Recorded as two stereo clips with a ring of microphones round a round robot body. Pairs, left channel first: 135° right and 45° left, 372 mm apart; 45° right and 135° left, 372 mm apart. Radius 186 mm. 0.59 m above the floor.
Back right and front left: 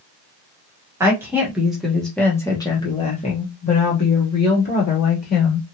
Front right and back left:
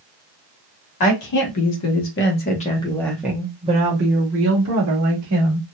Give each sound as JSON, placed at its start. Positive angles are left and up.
{"t": 1.0, "sound": "a woman speaking", "azimuth_deg": -35, "distance_m": 1.4}